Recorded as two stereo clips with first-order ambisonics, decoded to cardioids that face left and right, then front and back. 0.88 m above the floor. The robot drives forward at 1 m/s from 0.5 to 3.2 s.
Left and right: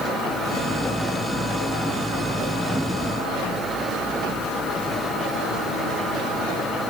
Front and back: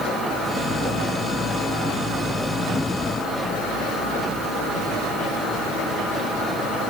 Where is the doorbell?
I don't hear a doorbell.